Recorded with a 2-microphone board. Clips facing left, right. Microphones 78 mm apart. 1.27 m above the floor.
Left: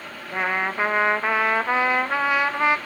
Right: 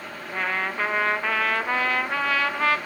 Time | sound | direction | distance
0.3 | a trumpet | 20° left (ahead or behind) | 0.6 m